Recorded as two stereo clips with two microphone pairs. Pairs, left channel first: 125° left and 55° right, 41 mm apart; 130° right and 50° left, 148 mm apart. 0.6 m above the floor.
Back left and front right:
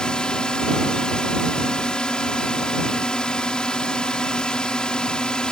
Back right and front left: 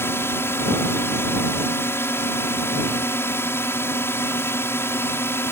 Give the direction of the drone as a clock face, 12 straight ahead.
6 o'clock.